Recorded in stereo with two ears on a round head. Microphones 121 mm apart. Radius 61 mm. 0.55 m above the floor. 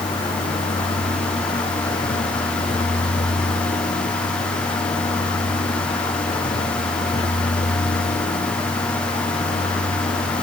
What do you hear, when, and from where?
0.0 s a vehicle: 45° left (ahead or behind)